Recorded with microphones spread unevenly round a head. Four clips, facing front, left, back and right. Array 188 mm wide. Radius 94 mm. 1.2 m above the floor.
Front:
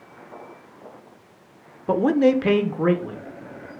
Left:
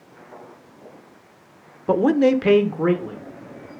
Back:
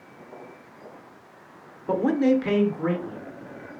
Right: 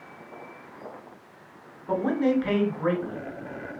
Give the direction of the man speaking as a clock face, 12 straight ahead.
9 o'clock.